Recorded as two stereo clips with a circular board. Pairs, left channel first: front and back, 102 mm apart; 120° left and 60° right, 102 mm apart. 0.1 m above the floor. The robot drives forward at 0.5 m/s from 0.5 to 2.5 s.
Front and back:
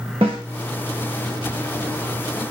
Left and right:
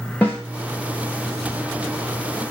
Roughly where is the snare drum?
Behind.